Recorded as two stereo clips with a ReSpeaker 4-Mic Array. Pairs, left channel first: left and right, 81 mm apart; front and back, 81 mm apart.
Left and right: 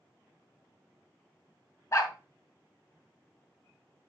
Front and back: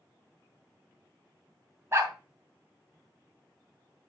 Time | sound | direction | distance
1.9 | a dog barking | 130° left | 2 m